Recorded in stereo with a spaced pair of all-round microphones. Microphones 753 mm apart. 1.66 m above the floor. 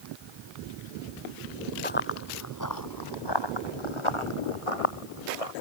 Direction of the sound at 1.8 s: 10° left (ahead or behind).